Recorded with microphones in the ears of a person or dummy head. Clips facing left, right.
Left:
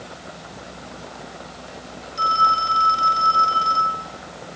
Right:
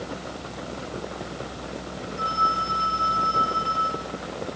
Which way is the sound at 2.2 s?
70° left (ahead or behind).